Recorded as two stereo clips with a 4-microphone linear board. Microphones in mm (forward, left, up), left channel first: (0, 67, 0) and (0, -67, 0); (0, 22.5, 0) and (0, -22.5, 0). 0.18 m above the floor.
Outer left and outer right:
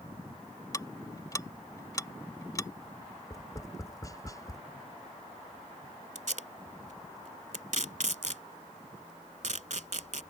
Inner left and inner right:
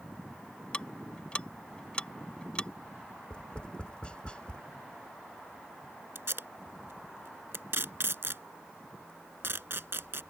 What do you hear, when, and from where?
0.7 s ticking: 25° left (ahead or behind)
3.3 s tapping: 25° left (ahead or behind)
6.2 s tape being pulled: 65° right (ahead or behind)